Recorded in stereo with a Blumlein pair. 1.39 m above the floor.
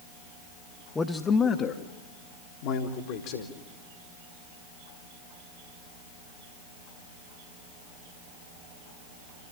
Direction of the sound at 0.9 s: 15° left.